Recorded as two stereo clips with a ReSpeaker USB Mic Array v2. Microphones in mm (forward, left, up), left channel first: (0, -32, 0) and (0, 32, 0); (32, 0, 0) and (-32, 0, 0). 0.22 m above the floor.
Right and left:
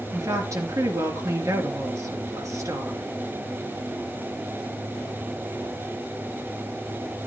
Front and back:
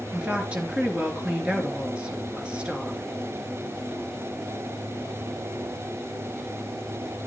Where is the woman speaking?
110° left, 3 m.